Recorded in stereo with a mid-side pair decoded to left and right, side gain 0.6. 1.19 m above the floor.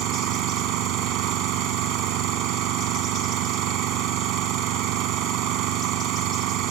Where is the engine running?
70° right.